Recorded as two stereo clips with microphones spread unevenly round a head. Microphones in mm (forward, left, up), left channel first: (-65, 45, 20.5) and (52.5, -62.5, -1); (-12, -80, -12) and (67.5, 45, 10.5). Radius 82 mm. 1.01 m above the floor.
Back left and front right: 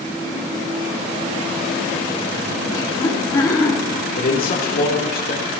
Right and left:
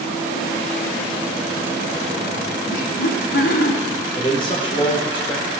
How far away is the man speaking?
About 3.5 m.